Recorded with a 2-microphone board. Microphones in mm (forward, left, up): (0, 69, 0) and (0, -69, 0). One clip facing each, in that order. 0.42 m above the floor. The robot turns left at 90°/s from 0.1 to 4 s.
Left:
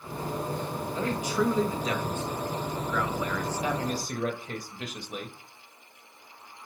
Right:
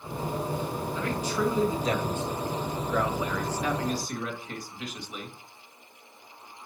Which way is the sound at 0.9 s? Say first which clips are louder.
Left 3 dB; 40° left.